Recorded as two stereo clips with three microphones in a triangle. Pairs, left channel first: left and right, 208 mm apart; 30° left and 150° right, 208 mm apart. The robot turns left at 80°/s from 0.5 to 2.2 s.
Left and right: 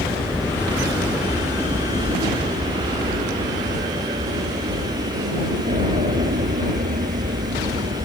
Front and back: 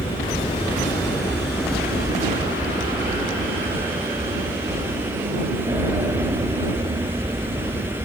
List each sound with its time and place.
0.0 s an aircraft: 10° left; by 8.1 s 85° right